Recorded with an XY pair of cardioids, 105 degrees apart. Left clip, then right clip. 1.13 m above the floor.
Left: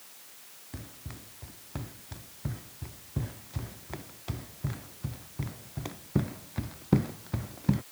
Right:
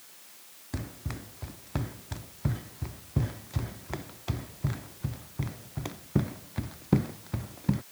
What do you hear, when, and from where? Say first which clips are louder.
0.7 s running footsteps: right 7 dB; 50° right; by 7.8 s 5° left